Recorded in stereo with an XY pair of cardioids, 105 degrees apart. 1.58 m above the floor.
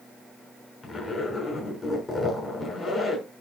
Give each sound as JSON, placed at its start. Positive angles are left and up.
{"t": 0.8, "sound": "a zipper", "azimuth_deg": 40, "distance_m": 6.5}